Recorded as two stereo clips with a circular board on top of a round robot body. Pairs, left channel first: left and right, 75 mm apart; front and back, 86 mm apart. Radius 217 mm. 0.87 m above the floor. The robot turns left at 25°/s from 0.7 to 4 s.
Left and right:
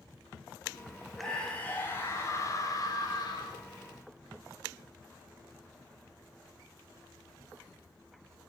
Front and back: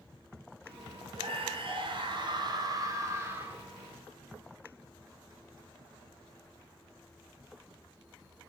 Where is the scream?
170° left, 3.5 m; by 3.6 s 110° left, 3.5 m.